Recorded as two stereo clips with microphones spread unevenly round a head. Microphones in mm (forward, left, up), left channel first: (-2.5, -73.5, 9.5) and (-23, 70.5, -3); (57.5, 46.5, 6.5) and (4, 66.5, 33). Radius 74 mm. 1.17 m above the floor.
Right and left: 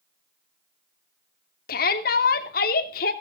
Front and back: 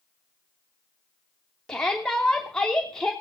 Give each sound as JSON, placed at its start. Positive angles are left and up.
{"t": 1.7, "sound": "a shout", "azimuth_deg": -100, "distance_m": 3.0}